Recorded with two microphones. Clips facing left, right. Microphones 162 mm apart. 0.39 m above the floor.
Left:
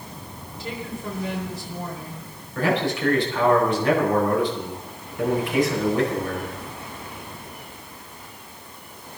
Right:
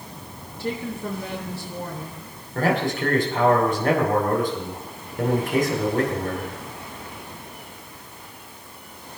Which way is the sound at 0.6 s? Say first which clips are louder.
Right 4 dB; 65° right (ahead or behind).